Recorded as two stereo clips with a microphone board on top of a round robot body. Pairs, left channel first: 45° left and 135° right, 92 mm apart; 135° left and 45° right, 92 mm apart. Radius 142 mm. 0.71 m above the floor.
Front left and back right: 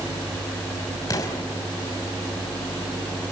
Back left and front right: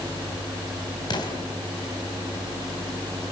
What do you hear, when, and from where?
1.1 s an explosion: 95° left, 3.5 m